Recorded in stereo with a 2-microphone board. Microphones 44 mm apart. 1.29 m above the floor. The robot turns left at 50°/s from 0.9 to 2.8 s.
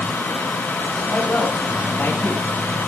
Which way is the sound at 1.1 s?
150° left.